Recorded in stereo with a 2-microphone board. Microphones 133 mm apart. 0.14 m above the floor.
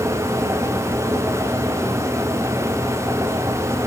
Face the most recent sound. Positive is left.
No sound to turn to.